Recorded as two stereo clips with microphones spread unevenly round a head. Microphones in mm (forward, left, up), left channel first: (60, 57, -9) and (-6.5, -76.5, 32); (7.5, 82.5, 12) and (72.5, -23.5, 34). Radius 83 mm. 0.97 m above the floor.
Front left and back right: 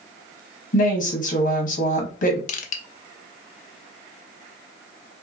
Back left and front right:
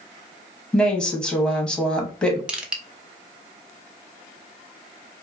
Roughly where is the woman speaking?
Ahead left.